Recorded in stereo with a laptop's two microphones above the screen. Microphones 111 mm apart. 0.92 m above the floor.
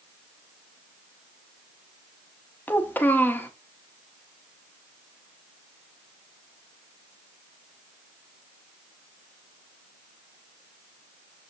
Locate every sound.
2.7 s a child speaking: 15° left (ahead or behind), 0.7 m